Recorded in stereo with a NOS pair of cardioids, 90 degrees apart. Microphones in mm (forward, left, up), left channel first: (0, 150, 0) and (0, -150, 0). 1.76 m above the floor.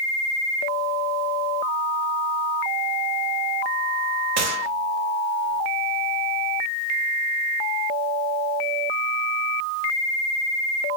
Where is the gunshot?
60° right, 0.6 m.